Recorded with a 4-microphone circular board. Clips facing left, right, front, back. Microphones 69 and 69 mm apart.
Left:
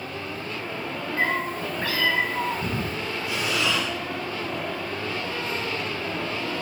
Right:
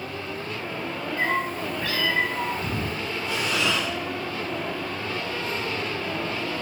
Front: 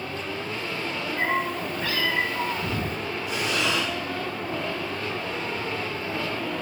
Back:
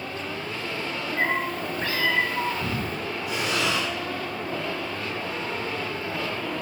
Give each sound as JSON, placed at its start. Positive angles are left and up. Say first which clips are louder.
{"t": 1.2, "sound": "a cat meowing", "louder": "even, even", "azimuth_deg": 135, "distance_m": 1.3}
{"t": 3.3, "sound": "breathing", "louder": "even, even", "azimuth_deg": 170, "distance_m": 2.0}